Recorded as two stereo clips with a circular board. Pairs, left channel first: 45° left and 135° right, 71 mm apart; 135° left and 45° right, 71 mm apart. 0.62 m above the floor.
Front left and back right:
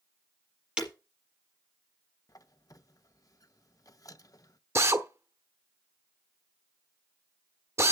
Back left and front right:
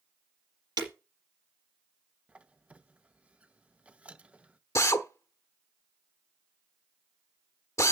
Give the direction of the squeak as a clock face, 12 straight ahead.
11 o'clock.